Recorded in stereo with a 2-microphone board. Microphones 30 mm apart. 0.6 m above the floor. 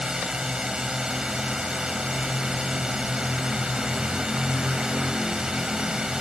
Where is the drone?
25° right (ahead or behind).